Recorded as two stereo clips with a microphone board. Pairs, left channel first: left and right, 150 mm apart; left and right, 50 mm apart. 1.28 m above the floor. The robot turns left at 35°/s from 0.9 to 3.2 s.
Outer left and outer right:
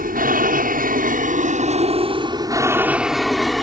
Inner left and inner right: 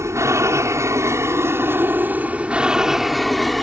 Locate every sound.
0.0 s an aircraft: 70° right (ahead or behind); by 3.6 s centre (ahead or behind)